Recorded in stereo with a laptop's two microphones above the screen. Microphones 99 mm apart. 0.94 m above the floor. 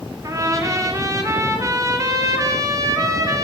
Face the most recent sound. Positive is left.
turn(degrees=-35)  # may be behind; listen again after turning